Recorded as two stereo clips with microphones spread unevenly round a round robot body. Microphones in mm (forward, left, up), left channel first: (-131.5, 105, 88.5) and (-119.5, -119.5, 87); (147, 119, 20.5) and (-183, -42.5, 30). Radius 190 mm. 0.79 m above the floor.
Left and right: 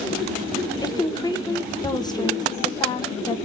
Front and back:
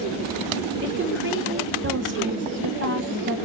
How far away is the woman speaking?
About 1.2 m.